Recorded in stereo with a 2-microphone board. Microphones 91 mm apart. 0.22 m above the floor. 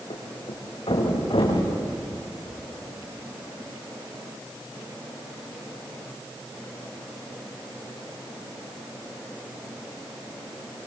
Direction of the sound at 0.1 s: 85° left.